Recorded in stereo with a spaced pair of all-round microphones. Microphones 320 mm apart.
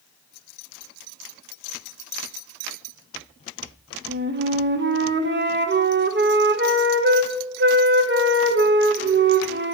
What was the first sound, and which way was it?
A flute, 35° right (ahead or behind).